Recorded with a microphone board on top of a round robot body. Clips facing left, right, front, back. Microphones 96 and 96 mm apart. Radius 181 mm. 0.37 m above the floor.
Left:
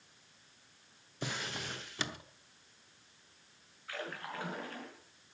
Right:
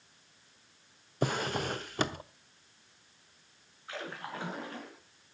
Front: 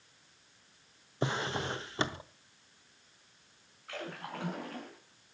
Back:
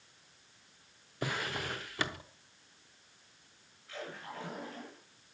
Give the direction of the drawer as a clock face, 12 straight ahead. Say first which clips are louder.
Right 9 dB, front 3 dB; 2 o'clock.